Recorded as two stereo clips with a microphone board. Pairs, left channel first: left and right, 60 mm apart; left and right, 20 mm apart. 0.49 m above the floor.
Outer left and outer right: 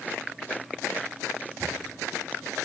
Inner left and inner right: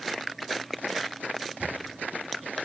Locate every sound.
1.6 s a camera shutter: 50° right (ahead or behind), 1.1 m